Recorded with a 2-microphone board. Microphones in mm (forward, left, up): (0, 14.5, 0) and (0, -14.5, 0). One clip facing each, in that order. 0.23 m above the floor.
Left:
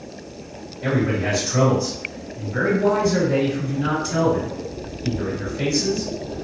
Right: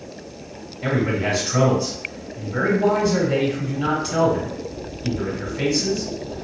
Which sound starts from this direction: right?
A man speaking, at 0.8 s.